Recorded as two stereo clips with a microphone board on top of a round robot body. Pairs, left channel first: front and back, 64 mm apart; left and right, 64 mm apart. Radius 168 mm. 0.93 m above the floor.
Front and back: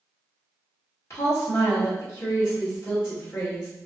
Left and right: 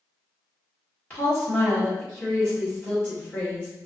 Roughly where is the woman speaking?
Ahead left.